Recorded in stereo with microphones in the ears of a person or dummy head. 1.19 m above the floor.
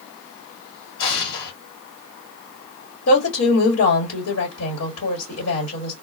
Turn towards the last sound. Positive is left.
turn(degrees=80)